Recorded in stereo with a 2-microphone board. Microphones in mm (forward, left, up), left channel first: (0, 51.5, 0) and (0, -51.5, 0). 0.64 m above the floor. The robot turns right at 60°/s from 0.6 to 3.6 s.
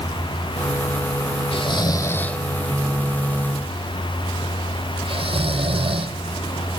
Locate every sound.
1.5 s snoring: 60° left (ahead or behind), 0.8 m; by 6.2 s 65° right (ahead or behind), 0.8 m